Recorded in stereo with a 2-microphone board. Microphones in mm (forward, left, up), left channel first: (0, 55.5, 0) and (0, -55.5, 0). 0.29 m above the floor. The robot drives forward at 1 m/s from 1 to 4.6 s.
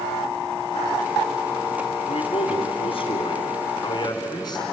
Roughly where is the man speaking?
Left.